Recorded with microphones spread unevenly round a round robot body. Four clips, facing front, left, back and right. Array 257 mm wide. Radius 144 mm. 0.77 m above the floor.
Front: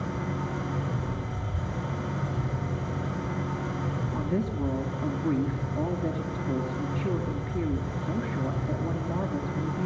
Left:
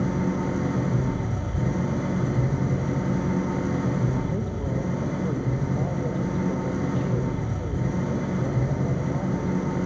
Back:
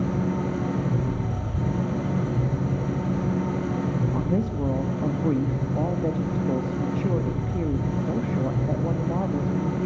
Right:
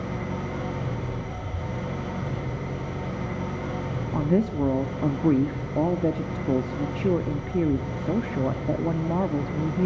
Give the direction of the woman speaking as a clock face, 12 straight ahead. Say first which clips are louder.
Right 5 dB, back 4 dB; 3 o'clock.